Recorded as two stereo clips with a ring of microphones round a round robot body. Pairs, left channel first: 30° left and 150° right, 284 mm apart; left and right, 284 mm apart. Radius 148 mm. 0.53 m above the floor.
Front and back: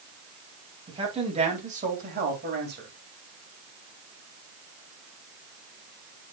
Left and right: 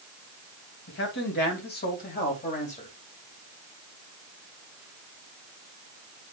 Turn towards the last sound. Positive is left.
turn(degrees=160)